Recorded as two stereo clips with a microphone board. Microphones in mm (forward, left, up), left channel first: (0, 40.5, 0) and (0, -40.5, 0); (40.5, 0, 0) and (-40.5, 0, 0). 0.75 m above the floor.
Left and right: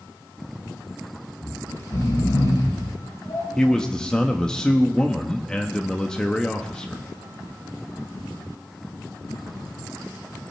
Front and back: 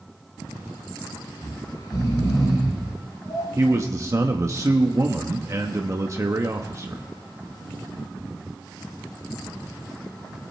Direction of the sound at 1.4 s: 50° left.